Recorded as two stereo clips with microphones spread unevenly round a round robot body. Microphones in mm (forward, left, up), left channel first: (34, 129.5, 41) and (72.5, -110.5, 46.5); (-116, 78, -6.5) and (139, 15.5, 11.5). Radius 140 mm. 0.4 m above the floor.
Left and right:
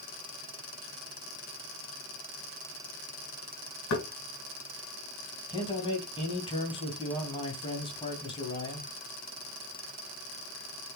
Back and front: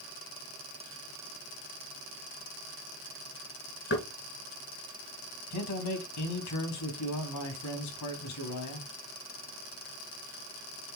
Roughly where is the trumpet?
I don't hear a trumpet.